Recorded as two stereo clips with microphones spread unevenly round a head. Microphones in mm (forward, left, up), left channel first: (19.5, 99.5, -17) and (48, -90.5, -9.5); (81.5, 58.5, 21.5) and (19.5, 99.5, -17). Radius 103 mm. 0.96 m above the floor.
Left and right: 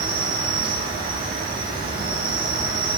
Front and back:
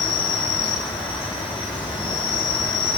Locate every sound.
0.0 s an insect: 35° right, 2 m